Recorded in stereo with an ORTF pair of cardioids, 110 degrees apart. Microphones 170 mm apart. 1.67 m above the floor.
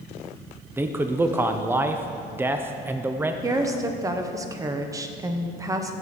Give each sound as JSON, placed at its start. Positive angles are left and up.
{"t": 0.8, "sound": "a man speaking", "azimuth_deg": -15, "distance_m": 0.6}
{"t": 3.4, "sound": "a woman speaking", "azimuth_deg": -20, "distance_m": 1.1}